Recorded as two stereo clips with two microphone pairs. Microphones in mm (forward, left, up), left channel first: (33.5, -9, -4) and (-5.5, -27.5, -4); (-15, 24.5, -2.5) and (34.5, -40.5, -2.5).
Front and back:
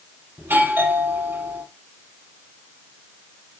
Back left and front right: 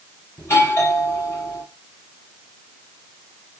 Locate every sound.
0.4 s a doorbell: straight behind, 6 m